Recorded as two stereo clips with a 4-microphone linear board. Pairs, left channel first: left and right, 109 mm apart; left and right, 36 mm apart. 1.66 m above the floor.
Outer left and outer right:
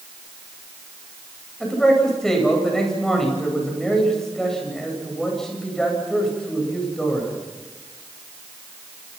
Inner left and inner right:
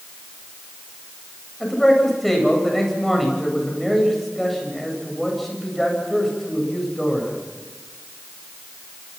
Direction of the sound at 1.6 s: 5° left (ahead or behind).